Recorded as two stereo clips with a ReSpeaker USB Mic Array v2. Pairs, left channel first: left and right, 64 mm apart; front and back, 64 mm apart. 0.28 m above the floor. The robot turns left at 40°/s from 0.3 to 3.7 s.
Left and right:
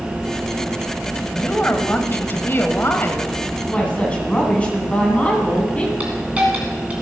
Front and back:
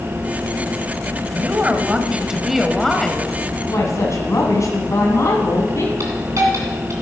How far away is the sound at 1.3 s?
About 1.0 m.